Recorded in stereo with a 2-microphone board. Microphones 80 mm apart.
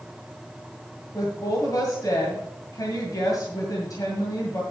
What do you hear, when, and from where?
1.1 s a woman speaking: 50° left (ahead or behind), 1.9 m